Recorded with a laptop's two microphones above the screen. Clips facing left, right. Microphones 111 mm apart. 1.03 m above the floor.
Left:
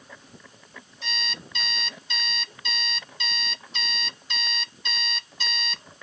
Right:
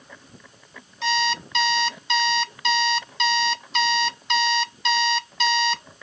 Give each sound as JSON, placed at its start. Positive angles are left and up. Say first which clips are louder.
{"t": 1.0, "sound": "an alarm clock", "louder": "right 14 dB", "side_deg": -75}